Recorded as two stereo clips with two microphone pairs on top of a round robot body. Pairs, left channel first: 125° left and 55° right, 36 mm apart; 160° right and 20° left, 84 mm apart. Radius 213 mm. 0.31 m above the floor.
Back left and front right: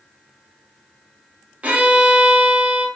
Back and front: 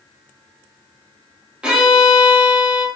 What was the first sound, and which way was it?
A violin, 50° right.